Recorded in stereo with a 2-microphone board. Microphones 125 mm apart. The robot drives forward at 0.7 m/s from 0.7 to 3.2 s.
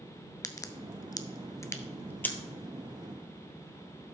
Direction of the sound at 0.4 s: 25° left (ahead or behind).